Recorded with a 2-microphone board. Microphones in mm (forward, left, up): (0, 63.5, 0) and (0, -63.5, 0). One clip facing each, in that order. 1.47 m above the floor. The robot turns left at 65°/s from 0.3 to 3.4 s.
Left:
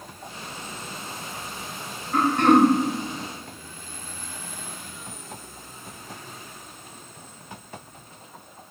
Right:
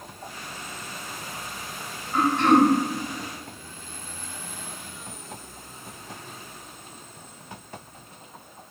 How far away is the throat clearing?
About 0.6 m.